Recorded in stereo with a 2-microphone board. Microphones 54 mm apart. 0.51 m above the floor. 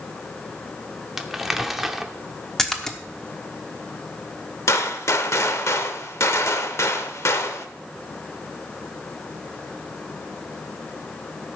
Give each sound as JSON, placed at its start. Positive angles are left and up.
{"t": 1.2, "sound": "crumpling", "side_deg": -5, "distance_m": 0.7}
{"t": 2.6, "sound": "a splash", "side_deg": 5, "distance_m": 1.0}
{"t": 4.7, "sound": "a gunshot", "side_deg": 60, "distance_m": 0.9}